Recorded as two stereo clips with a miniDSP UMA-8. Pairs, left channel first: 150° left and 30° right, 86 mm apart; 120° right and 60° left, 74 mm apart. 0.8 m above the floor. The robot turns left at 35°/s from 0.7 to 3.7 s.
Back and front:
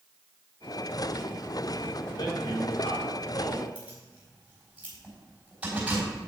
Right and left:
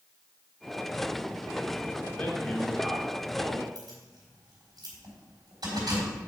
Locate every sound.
2.1 s a man speaking: 175° left, 1.8 m; by 3.6 s 120° left, 1.8 m
3.8 s keys jangling: 45° left, 3.5 m